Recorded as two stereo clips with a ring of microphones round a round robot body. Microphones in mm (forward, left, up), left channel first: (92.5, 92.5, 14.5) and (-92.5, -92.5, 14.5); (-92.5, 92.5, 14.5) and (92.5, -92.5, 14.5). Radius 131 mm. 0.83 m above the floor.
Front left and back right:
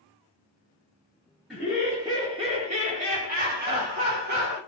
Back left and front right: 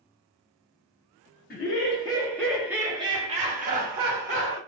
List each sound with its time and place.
1.5 s laughter: 140° left, 1.1 m; by 4.6 s 85° right, 1.8 m